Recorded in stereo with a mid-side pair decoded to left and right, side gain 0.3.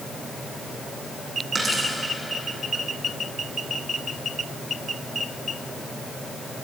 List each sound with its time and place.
1.6 s a dropped coin: 40° right, 5 m